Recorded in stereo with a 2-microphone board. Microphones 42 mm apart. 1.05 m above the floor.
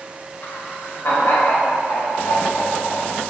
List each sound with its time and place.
0.4 s laughter: 85° left, 3.5 m; by 3.2 s 75° left (ahead or behind), 6 m